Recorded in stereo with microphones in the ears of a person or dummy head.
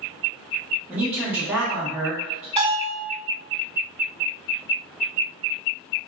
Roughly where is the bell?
Right.